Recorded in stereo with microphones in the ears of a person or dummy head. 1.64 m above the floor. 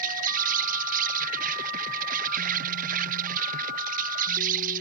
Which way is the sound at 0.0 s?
45° right (ahead or behind).